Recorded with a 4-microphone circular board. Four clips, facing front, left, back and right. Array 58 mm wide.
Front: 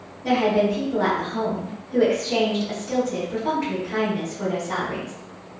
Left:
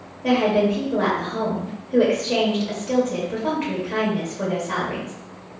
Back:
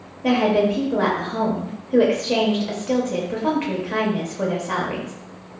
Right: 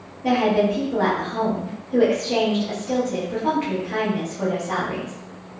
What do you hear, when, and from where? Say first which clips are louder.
0.2 s a woman speaking: even, back 2 dB; 175° left, 0.8 m